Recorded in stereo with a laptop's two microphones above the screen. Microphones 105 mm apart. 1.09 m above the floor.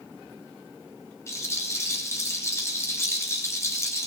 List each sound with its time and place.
1.3 s a rattle: 25° left (ahead or behind), 2 m